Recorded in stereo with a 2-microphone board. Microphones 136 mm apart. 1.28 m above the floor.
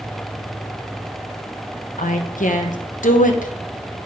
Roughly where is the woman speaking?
Left.